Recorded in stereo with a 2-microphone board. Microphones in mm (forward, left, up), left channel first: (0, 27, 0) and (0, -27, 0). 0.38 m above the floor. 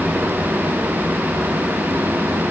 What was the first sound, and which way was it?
Only background noise.